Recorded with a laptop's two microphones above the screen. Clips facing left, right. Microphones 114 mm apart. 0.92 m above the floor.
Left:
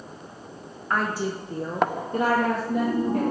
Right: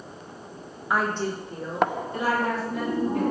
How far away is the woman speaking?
About 0.6 m.